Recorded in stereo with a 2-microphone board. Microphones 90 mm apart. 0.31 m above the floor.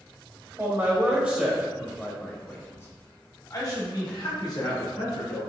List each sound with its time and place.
0.6 s a man speaking: 30° right (ahead or behind), 1.3 m; by 5.5 s 60° left (ahead or behind), 2.5 m